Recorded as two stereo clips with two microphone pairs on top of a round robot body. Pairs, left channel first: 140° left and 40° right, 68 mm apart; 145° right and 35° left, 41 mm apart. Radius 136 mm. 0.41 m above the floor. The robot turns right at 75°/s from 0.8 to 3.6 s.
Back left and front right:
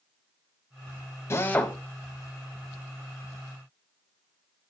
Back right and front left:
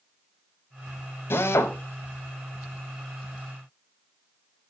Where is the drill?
170° right, 1.2 m; by 1.8 s 135° right, 1.2 m.